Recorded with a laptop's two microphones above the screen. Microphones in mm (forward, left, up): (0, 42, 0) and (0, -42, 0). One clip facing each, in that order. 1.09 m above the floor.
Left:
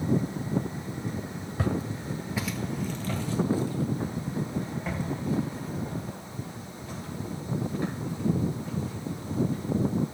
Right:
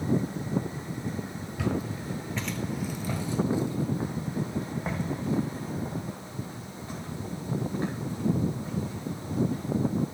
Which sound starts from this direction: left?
Footsteps, at 1.6 s.